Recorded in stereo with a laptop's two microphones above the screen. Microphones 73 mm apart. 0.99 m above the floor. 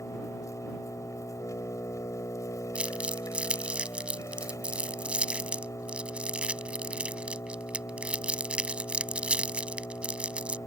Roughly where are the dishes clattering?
I don't hear dishes clattering.